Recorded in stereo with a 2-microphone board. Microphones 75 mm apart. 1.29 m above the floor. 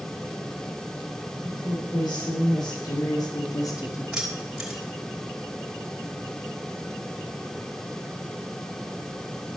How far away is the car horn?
No car horn in this recording.